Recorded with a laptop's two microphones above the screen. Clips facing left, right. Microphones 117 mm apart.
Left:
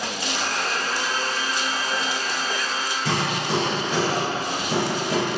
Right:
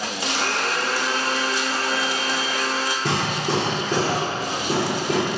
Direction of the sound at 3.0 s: 50° right (ahead or behind).